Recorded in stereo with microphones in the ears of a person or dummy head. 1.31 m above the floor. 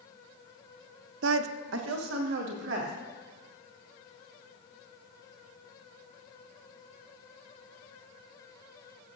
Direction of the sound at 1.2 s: 70° right (ahead or behind).